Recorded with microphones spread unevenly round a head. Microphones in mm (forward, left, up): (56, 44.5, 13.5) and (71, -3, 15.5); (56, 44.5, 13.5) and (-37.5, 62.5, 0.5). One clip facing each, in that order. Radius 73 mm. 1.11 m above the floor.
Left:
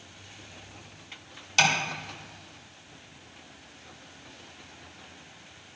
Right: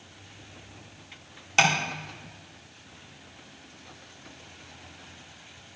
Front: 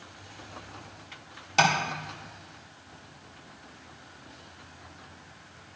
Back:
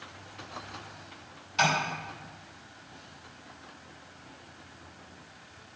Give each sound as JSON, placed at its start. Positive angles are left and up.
{"t": 1.6, "sound": "tapping", "azimuth_deg": -10, "distance_m": 1.8}